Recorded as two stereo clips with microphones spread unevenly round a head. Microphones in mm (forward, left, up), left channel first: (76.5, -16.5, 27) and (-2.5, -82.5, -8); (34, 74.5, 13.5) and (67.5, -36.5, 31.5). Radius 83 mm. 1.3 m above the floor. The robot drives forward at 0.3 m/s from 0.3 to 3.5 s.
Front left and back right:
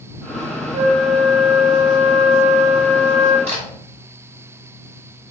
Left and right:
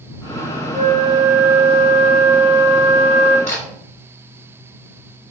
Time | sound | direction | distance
0.7 | a flute | 170° right | 1.8 m
3.5 | a camera shutter | 160° left | 2.5 m